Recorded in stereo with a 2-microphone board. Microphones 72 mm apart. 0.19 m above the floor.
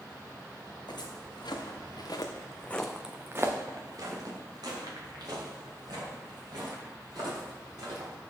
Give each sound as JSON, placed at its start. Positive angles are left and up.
{"t": 0.9, "sound": "footsteps", "side_deg": 85, "distance_m": 2.5}